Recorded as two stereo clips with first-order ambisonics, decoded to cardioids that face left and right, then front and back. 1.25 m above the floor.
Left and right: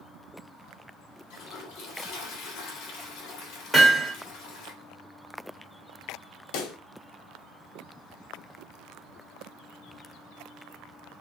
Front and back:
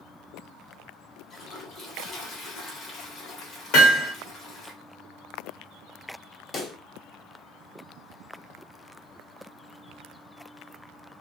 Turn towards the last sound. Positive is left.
turn(degrees=70)